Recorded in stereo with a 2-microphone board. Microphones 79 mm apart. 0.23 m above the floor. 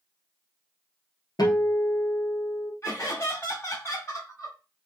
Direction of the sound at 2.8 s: 35° left (ahead or behind).